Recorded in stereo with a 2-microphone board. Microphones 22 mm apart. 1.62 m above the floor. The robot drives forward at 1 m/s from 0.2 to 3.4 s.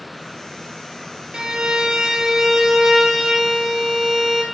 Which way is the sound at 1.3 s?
45° right (ahead or behind).